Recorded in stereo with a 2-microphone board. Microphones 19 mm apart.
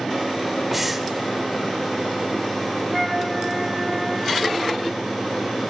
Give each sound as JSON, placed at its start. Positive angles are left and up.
{"t": 0.7, "sound": "breathing", "side_deg": -10, "distance_m": 0.6}
{"t": 2.9, "sound": "a flute", "side_deg": 5, "distance_m": 0.7}